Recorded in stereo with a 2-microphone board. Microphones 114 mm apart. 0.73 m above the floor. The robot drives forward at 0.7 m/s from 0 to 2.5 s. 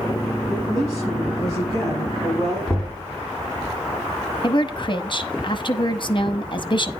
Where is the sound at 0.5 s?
40° right (ahead or behind), 5 m; by 2.6 s 30° right (ahead or behind), 6 m.